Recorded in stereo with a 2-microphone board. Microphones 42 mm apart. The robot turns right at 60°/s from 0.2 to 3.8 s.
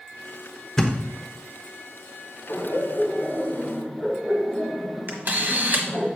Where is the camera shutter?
50° right (ahead or behind), 1.2 m.